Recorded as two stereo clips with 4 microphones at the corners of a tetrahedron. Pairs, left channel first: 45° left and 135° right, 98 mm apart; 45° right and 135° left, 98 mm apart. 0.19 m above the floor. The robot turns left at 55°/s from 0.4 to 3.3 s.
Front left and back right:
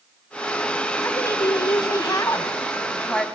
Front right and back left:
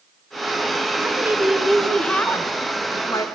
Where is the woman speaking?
85° left, 1.9 m; by 3.2 s 40° right, 1.9 m.